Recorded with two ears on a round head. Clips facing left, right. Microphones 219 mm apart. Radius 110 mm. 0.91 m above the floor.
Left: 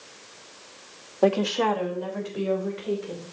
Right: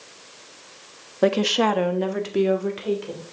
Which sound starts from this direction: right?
A woman speaking, at 1.2 s.